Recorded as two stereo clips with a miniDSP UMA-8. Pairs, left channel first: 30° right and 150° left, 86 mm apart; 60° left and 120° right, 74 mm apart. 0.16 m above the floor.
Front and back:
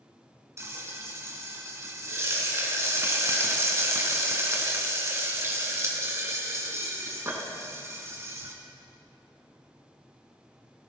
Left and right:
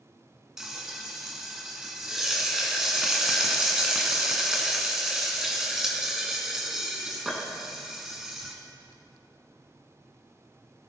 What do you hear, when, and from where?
0.6 s frying: 165° left, 1.8 m